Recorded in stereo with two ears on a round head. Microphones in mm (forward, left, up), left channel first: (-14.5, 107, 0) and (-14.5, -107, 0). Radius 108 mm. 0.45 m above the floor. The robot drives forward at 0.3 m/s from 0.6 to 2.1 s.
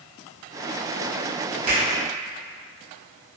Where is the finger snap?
65° right (ahead or behind), 1.3 m.